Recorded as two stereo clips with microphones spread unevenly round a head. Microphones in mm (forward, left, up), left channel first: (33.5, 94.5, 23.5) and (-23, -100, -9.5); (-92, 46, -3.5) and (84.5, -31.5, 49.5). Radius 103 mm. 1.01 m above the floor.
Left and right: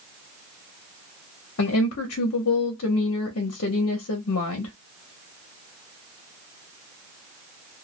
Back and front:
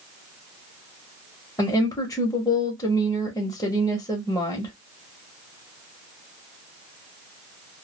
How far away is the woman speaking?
About 0.8 m.